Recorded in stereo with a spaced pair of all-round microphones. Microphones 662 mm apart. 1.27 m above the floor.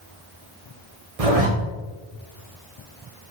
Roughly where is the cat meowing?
I don't hear a cat meowing.